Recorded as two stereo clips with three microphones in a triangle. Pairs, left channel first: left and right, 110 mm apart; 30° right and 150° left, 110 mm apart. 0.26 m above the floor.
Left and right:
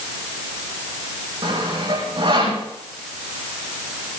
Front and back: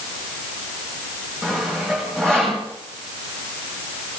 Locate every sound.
1.4 s sawing: 115° right, 8.5 m